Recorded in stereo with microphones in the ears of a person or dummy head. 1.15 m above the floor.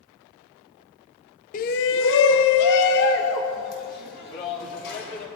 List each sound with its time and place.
1.5 s a shout: 35° left (ahead or behind), 0.6 m; by 5.3 s 50° left (ahead or behind), 3 m